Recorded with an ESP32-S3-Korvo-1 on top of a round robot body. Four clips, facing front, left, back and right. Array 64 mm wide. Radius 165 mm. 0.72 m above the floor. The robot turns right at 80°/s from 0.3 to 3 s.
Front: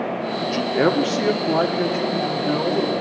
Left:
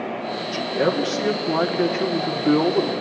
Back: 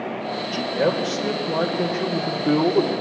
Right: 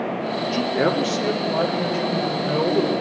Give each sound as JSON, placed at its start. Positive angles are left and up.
{"t": 0.4, "sound": "a man speaking", "azimuth_deg": -45, "distance_m": 2.5}